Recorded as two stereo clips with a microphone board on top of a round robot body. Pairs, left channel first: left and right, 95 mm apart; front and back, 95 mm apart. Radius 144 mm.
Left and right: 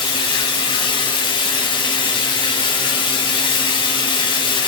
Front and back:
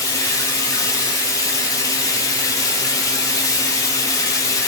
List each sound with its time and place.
0.0 s running water: 55° left, 2.0 m